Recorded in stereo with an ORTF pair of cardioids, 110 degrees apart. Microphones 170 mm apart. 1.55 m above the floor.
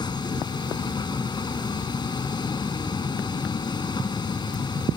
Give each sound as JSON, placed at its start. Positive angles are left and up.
{"t": 0.0, "sound": "a vehicle", "azimuth_deg": 25}